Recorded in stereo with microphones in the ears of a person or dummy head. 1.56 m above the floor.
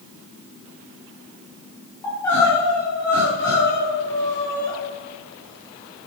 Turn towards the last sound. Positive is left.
turn(degrees=15)  # may be behind; listen again after turning